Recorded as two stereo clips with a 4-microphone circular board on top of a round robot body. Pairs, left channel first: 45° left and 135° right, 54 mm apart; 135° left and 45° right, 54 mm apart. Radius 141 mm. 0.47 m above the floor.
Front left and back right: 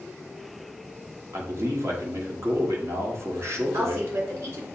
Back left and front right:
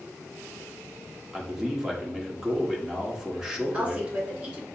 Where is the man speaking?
125° right, 1.4 m.